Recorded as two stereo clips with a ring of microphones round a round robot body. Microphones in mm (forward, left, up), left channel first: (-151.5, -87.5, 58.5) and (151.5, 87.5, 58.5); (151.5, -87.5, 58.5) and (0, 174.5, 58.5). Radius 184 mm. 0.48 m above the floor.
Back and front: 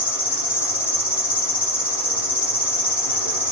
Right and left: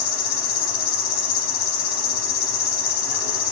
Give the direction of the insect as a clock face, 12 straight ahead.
2 o'clock.